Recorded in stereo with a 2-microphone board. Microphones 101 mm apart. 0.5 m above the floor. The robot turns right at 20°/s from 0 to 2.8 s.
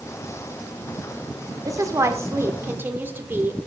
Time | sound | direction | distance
1.6 | a woman speaking | 35° right (ahead or behind) | 1.1 m